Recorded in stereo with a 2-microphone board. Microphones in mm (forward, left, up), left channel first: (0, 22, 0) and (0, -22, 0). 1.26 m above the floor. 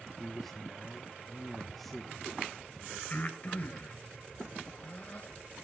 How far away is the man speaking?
About 1.2 m.